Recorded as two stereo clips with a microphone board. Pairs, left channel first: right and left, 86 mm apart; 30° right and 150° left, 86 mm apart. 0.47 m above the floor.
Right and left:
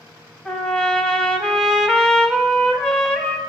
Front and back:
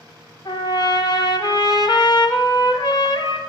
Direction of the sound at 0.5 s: 5° right.